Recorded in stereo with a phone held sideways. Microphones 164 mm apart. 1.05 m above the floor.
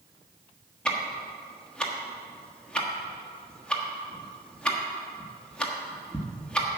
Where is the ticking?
5° left (ahead or behind), 1.3 m.